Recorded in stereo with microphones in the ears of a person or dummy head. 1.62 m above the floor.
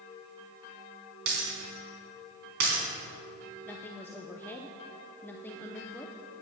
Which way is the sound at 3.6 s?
10° left (ahead or behind).